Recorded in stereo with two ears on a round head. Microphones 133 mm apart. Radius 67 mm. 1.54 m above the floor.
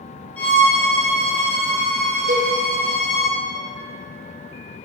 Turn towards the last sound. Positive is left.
turn(degrees=-55)  # may be behind; listen again after turning